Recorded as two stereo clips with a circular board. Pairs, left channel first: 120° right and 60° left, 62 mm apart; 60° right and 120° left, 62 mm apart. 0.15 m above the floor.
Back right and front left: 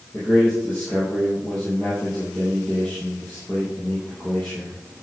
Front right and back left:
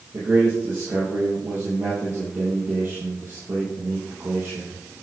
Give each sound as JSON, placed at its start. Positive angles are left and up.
{"t": 0.1, "sound": "a man speaking", "azimuth_deg": 175, "distance_m": 4.0}